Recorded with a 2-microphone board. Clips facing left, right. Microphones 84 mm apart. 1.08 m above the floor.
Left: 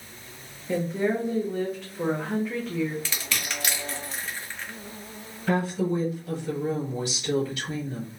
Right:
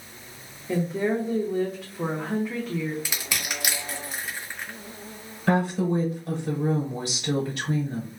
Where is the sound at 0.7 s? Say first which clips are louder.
Even; 5° right (ahead or behind), 0.5 m.